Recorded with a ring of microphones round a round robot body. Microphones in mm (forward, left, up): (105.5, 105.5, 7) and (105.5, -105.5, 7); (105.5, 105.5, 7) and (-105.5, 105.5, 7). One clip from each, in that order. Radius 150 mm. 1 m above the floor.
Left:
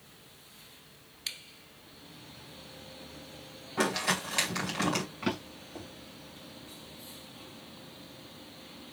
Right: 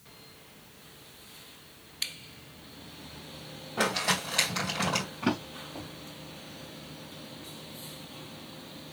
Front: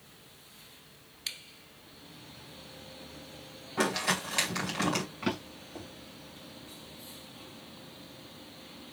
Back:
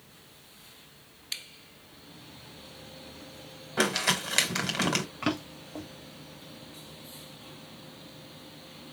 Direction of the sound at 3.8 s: 150° left.